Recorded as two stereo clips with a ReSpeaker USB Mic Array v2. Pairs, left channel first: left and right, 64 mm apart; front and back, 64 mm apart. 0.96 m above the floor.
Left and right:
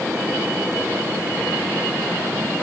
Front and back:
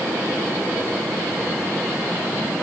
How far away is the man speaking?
I don't hear a man speaking.